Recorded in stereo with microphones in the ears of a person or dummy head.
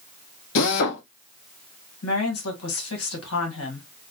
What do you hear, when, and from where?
0.6 s a drill: 65° left (ahead or behind), 1.4 m
2.0 s a woman speaking: 75° left (ahead or behind), 2 m